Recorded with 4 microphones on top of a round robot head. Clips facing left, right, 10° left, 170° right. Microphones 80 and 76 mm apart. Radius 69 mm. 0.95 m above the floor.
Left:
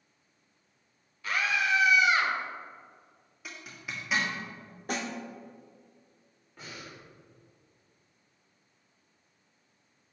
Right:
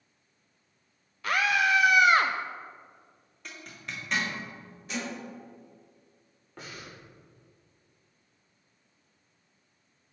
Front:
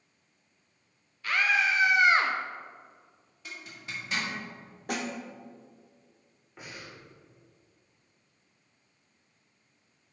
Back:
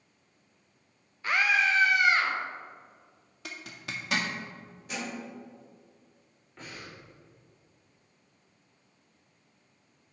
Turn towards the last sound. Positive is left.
turn(degrees=-70)